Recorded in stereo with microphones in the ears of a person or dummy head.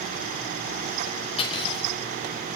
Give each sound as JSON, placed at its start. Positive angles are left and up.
{"t": 1.4, "sound": "cutlery clinking", "side_deg": 30, "distance_m": 5.0}